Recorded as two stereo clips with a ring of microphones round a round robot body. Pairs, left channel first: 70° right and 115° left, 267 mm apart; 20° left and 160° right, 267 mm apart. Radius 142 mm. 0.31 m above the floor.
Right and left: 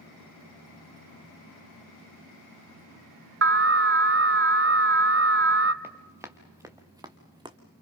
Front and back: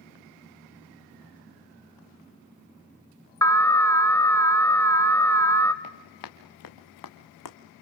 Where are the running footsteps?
30° left, 2.5 m; by 7.6 s 40° left, 1.7 m.